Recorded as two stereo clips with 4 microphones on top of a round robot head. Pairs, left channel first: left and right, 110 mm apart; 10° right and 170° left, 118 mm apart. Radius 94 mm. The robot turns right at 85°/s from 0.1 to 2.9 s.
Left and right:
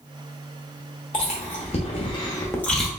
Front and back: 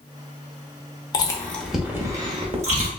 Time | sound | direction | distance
1.1 | chewing | 35° left | 0.7 m